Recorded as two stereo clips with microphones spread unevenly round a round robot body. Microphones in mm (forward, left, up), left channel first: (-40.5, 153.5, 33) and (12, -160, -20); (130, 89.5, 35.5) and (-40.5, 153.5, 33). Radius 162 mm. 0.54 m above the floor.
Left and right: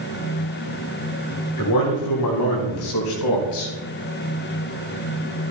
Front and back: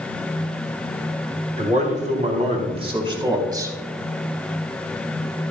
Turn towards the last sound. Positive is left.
turn(degrees=85)